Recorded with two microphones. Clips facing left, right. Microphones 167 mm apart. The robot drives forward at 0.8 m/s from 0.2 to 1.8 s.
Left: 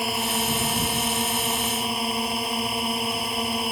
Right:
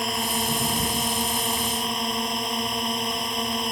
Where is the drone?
5° left (ahead or behind).